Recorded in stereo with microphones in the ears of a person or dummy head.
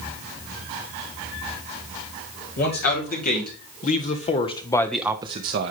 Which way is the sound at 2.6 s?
50° left (ahead or behind).